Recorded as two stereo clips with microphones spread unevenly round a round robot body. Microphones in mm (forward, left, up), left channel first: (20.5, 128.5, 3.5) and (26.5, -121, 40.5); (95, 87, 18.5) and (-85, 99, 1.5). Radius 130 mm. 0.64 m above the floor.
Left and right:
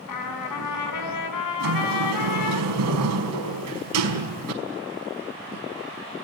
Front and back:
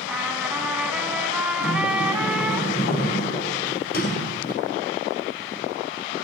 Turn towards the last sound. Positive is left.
turn(degrees=-60)